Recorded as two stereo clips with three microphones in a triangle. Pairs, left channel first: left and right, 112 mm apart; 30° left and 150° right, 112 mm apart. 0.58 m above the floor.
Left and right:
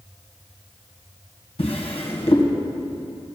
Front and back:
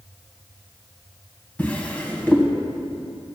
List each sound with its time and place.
1.6 s a drawer: 105° left, 1.9 m